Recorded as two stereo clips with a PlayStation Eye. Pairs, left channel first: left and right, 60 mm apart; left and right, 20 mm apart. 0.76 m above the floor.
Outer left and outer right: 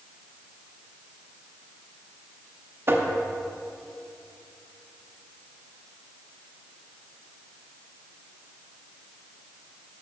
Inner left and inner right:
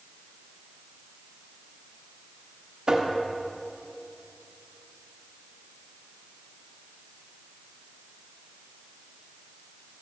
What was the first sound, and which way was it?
Tapping, 40° right (ahead or behind).